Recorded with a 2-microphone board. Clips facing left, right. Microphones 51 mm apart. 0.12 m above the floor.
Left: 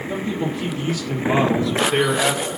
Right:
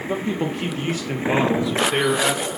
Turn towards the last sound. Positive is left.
turn(degrees=25)  # may be behind; listen again after turning